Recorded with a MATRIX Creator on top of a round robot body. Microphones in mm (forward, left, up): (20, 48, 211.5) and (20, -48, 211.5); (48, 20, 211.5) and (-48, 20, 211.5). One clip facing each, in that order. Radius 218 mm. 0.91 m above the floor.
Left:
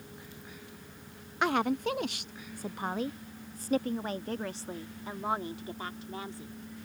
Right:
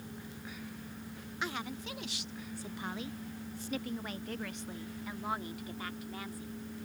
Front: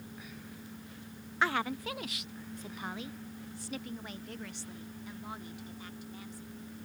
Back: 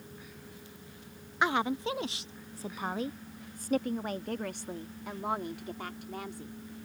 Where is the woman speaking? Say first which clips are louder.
Left 12 dB, back 3 dB; 110° left; by 6.5 s 155° left.